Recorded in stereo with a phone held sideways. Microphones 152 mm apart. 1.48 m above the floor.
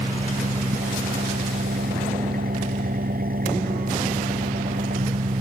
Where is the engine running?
75° right (ahead or behind).